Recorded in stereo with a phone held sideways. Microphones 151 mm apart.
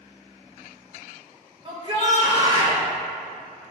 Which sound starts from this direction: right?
A shout, at 1.6 s.